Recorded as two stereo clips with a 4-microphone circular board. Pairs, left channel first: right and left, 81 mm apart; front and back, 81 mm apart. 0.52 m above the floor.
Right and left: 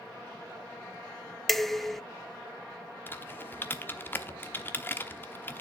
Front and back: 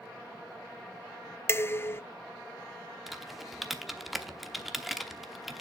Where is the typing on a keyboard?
95° right, 0.9 m.